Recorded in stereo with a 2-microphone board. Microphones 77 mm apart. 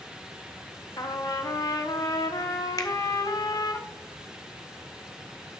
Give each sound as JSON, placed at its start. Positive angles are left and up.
{"t": 1.0, "sound": "a trumpet", "side_deg": 55, "distance_m": 0.9}
{"t": 2.8, "sound": "a finger snap", "side_deg": 50, "distance_m": 0.9}